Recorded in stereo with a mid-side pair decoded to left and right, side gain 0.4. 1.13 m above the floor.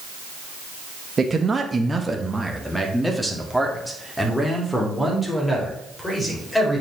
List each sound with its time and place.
1.2 s a man speaking: 35° right, 0.9 m; by 6.8 s 15° left, 4 m